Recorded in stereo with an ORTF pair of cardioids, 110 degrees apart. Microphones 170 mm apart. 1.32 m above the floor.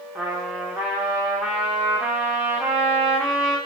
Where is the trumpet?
5° right, 0.7 m.